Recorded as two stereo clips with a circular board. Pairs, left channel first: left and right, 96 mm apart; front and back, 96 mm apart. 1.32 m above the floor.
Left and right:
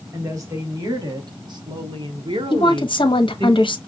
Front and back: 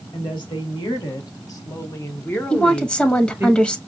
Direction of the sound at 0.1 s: 35° right.